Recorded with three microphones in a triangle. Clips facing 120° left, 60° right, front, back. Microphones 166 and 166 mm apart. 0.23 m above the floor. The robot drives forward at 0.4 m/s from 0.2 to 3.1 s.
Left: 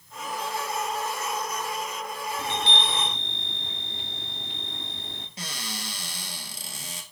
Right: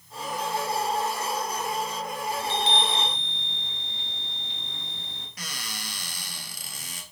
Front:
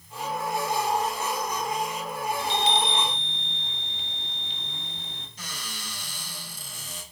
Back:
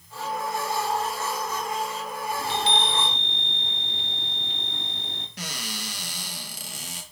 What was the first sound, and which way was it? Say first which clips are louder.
A chime: right 2 dB, even; 145° left.